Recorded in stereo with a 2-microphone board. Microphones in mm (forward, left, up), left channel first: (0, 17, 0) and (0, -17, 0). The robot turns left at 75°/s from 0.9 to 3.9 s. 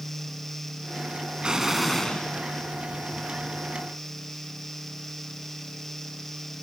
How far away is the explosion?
About 1.8 m.